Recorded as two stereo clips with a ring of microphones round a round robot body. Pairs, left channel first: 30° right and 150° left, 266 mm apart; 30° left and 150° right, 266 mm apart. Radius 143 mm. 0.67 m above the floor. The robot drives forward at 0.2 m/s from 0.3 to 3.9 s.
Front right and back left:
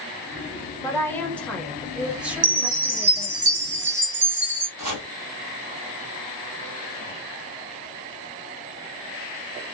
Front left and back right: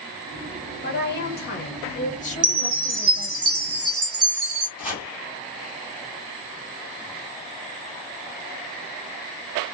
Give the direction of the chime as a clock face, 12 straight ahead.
6 o'clock.